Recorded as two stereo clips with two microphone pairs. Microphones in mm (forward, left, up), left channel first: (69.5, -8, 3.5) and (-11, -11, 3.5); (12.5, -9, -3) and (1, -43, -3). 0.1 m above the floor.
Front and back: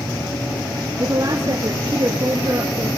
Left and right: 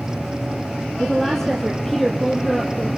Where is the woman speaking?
150° left, 2 m.